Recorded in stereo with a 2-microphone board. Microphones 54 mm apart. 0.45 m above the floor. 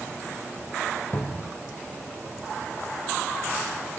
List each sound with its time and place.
1.1 s a cupboard door: 35° left (ahead or behind), 0.6 m